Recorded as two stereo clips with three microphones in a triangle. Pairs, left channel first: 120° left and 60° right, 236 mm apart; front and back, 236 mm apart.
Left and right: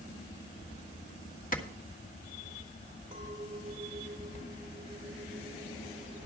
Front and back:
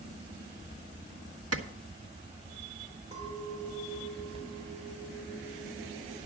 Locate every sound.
1.5 s a clap: 175° left, 1.4 m
3.1 s a clink: 115° right, 3.5 m